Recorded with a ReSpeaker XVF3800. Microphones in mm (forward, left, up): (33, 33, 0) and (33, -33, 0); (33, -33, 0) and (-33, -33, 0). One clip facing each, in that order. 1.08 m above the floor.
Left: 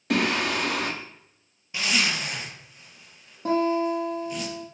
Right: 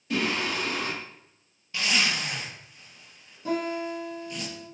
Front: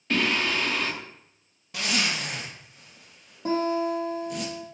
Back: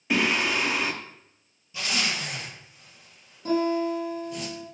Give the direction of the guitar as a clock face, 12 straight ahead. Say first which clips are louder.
Left 6 dB, back 1 dB; 10 o'clock.